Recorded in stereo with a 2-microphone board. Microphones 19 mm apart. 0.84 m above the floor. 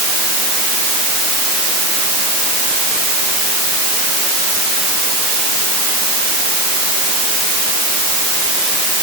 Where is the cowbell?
No cowbell in this recording.